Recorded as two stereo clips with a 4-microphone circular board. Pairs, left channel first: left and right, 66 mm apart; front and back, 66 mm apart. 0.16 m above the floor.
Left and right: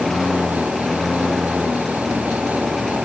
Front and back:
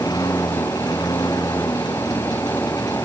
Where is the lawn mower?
5° left; by 3.0 s straight ahead.